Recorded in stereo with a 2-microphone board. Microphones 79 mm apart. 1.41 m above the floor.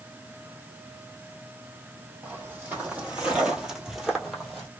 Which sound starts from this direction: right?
Footsteps, at 2.2 s.